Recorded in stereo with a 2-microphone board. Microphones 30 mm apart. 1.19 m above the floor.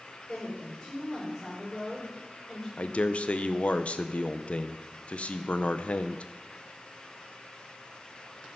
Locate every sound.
0.3 s a woman speaking: 25° left (ahead or behind), 5 m
2.8 s a man speaking: 45° left (ahead or behind), 0.6 m